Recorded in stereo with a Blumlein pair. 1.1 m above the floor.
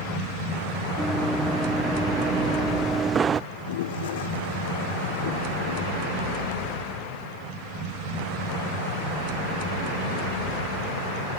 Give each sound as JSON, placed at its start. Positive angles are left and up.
{"t": 1.0, "sound": "running footsteps", "azimuth_deg": 0}
{"t": 3.5, "sound": "a toilet flushing", "azimuth_deg": 55}